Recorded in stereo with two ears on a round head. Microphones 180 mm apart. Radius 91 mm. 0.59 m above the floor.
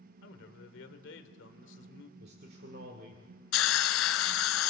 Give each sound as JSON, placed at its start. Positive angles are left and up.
{"t": 0.2, "sound": "a man speaking", "side_deg": 65, "distance_m": 2.0}
{"t": 2.2, "sound": "a man speaking", "side_deg": -50, "distance_m": 2.0}
{"t": 3.5, "sound": "a hiss", "side_deg": 70, "distance_m": 1.2}